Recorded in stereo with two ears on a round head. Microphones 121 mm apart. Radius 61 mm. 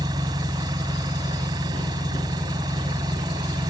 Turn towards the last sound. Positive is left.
turn(degrees=-30)  # may be behind; listen again after turning